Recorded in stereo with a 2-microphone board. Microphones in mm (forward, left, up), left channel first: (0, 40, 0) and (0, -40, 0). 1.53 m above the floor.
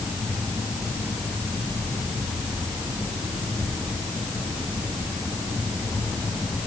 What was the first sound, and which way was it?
Only background noise.